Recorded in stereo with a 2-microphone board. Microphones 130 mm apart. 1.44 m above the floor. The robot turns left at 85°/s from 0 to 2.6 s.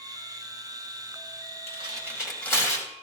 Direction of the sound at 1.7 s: 55° right (ahead or behind).